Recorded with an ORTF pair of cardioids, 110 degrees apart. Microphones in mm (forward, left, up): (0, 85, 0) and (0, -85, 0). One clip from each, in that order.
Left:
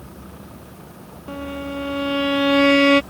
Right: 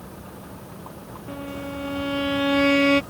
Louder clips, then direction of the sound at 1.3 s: Left 4 dB; 25° left.